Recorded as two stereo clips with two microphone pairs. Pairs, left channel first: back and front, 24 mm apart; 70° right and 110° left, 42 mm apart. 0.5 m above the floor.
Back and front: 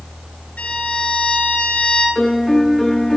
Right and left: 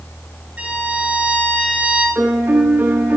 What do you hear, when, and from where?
0.6 s a violin: 165° left, 9 m
2.1 s a piano: 105° left, 3.5 m